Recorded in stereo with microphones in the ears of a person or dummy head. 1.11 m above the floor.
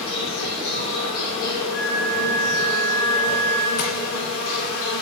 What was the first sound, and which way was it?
An insect, 65° left (ahead or behind).